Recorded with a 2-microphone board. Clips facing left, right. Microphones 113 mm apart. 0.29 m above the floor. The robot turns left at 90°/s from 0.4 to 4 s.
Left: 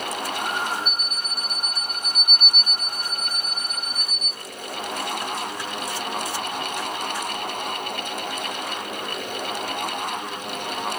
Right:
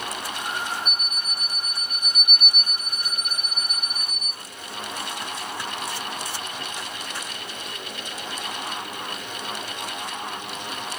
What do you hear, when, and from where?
0.8 s an alarm clock: 40° right, 0.7 m; by 4.3 s 35° left, 0.7 m